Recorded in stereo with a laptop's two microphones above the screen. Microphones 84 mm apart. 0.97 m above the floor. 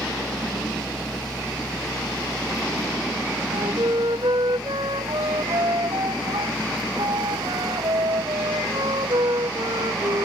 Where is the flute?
75° right (ahead or behind).